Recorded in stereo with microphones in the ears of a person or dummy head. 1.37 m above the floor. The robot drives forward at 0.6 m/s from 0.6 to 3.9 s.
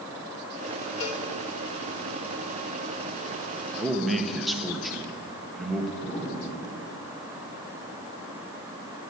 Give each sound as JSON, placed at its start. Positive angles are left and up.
{"t": 1.0, "sound": "a cowbell", "side_deg": 65, "distance_m": 1.6}
{"t": 3.8, "sound": "a man speaking", "side_deg": -5, "distance_m": 1.1}
{"t": 6.0, "sound": "an explosion", "side_deg": 45, "distance_m": 4.0}